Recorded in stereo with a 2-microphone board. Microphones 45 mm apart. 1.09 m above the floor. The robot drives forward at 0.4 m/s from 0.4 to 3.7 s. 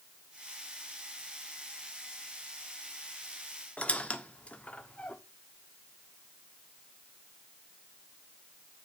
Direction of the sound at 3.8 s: 30° left (ahead or behind).